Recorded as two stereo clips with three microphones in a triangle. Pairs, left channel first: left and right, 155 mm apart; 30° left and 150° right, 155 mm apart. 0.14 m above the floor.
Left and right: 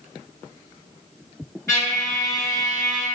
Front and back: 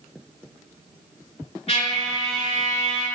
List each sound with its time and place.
1.7 s a trumpet: 30° left, 1.5 m